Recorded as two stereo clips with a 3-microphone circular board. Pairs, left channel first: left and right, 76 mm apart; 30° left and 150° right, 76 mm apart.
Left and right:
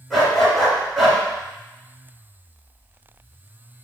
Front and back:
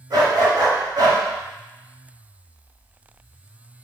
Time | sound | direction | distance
0.1 | a dog barking | 175° right | 1.8 m